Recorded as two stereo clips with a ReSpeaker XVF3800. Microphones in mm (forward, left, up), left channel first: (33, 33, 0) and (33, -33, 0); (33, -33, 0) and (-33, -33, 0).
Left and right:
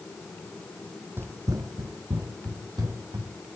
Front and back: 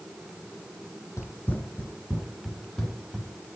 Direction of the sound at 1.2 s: 40° right.